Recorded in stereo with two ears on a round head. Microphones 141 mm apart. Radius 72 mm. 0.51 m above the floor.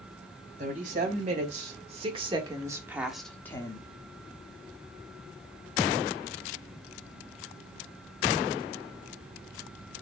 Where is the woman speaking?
55° right (ahead or behind), 2.5 m; by 3.9 s 30° left (ahead or behind), 1.2 m.